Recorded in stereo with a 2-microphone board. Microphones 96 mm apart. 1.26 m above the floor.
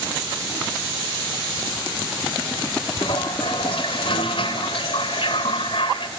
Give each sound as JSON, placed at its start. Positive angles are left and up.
{"t": 3.0, "sound": "a toilet flushing", "side_deg": 65, "distance_m": 2.5}